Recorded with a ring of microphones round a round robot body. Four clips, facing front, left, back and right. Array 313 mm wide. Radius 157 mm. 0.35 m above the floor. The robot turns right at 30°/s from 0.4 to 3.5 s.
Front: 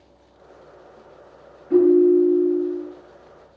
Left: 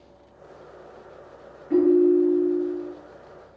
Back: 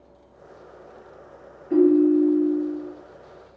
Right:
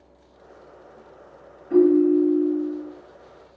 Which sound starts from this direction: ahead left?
A ringtone, at 1.7 s.